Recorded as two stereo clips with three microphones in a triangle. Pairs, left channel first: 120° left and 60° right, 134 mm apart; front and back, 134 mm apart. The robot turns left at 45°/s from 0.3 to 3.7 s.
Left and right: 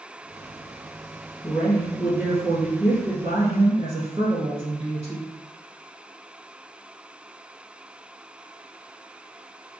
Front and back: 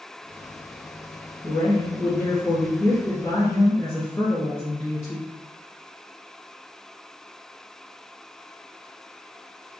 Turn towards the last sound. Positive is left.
turn(degrees=-65)